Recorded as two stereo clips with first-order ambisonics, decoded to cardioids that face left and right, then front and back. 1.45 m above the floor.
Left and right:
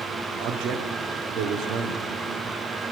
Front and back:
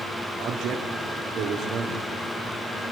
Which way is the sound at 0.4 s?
125° right.